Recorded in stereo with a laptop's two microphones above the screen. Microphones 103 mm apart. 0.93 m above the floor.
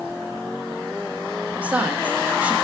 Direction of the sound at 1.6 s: 15° right (ahead or behind).